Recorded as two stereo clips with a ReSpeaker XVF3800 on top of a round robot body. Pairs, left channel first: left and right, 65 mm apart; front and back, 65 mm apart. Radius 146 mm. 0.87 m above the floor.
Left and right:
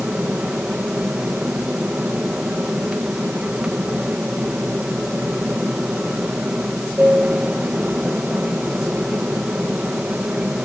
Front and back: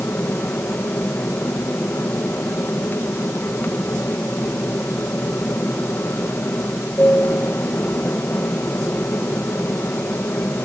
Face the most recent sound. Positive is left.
turn(degrees=-25)